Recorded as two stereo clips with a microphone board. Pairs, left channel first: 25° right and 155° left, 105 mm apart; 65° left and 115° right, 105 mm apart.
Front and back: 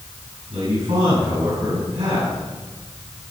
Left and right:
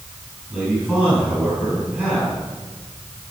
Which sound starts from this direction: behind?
A man speaking, at 0.5 s.